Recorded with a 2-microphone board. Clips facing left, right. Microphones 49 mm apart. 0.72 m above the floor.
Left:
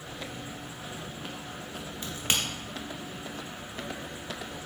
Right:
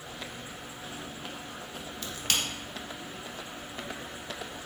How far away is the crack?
About 0.7 m.